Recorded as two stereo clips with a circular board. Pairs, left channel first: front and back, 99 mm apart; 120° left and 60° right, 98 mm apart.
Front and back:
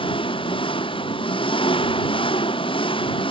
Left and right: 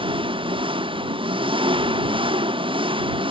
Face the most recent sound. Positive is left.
turn(degrees=-30)